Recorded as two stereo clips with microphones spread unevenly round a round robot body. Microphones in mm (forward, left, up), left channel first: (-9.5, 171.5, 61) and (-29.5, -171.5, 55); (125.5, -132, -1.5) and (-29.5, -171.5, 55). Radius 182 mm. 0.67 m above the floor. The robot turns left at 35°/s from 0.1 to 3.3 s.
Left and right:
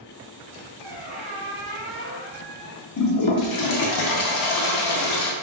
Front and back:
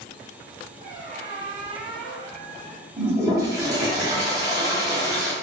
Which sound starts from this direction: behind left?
A toilet flushing, at 3.0 s.